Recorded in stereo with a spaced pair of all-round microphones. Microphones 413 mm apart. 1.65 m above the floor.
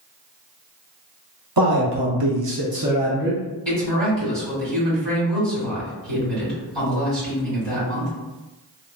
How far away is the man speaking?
About 1.0 m.